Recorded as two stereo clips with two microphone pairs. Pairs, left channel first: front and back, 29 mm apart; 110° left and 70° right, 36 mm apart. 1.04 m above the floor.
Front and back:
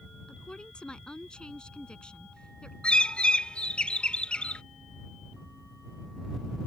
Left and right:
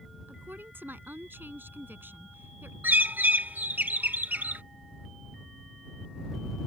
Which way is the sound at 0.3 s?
55° right.